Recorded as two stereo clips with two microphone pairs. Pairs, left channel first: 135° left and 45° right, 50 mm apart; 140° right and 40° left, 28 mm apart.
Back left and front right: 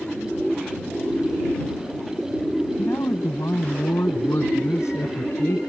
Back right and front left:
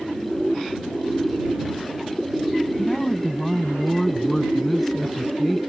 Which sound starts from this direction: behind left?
A man speaking, at 2.8 s.